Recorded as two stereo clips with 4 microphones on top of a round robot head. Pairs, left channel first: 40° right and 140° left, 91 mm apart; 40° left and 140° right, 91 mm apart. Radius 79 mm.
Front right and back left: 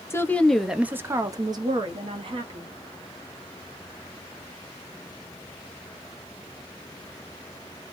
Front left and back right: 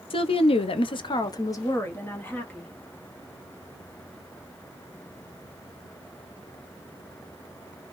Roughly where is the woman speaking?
Ahead.